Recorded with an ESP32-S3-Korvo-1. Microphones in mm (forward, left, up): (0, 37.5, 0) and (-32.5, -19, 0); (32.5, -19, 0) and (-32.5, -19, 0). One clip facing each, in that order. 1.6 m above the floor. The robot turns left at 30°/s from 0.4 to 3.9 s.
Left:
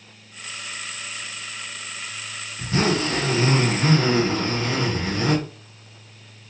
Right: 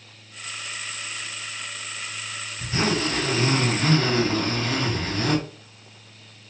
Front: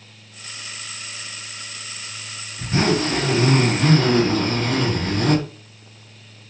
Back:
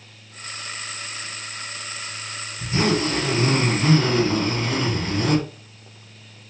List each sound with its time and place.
2.6 s a zipper: 30° left, 2.5 m; by 5.4 s 10° right, 2.5 m